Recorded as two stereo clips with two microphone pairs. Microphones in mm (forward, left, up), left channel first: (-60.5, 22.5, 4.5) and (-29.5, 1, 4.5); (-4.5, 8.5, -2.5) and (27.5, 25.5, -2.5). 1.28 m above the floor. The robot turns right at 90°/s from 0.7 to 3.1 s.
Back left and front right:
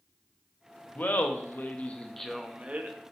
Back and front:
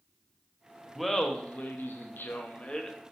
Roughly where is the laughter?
Left.